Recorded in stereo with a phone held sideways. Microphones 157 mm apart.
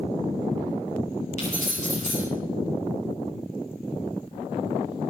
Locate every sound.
1.4 s keys jangling: 55° left (ahead or behind), 7.5 m